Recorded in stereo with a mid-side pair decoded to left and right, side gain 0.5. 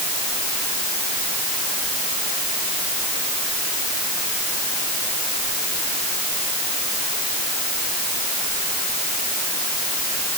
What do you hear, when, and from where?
Only background noise.